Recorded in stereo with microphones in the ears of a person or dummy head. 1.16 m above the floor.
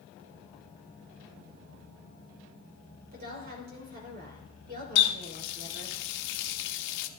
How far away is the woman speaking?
About 3.5 m.